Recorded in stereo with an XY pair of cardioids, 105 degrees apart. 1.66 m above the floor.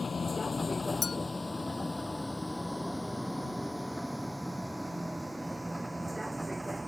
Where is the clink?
40° left.